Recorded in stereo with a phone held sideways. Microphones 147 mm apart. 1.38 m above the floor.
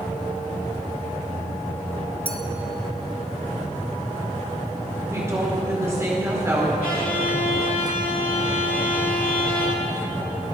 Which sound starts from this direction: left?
A violin, at 6.8 s.